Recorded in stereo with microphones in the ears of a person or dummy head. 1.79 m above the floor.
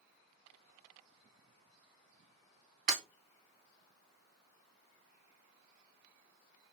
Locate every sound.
2.9 s breaking glass: 45° right (ahead or behind), 3.5 m